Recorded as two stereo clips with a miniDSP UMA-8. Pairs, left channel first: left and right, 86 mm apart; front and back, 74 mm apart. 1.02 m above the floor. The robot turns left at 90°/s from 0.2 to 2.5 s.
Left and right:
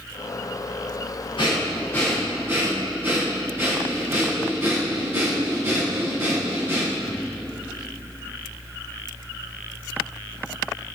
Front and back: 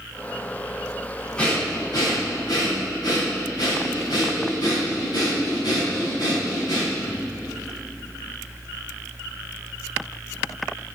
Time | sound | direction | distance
1.4 | breathing | 75° left | 5 m